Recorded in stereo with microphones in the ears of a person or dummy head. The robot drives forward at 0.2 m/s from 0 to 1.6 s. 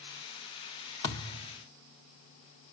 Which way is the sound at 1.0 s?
20° left (ahead or behind).